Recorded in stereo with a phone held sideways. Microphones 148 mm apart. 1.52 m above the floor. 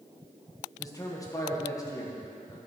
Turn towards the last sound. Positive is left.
turn(degrees=25)  # may be behind; listen again after turning